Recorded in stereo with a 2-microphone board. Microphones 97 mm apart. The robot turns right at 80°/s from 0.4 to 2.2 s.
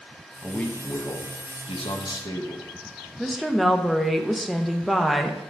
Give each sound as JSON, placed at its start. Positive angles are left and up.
{"t": 0.4, "sound": "a man speaking", "azimuth_deg": -5, "distance_m": 1.0}
{"t": 3.2, "sound": "a woman speaking", "side_deg": 0, "distance_m": 0.7}